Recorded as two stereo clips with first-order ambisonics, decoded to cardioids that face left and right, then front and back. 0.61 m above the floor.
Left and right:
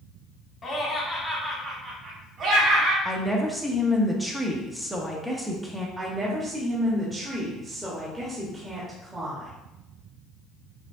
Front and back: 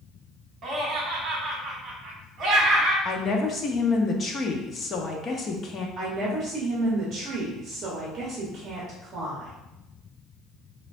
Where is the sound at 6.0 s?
155° right, 0.9 m.